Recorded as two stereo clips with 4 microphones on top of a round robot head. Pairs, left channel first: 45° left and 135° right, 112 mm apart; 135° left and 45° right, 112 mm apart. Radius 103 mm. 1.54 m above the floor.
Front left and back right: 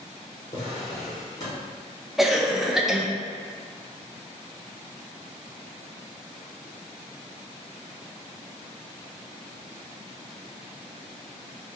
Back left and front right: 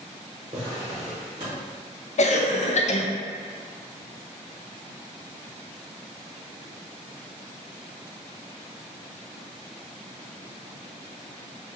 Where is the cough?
135° left, 0.5 m.